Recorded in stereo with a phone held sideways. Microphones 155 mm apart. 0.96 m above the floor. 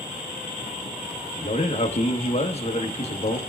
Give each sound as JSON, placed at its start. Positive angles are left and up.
{"t": 1.4, "sound": "a man speaking", "side_deg": 40, "distance_m": 1.1}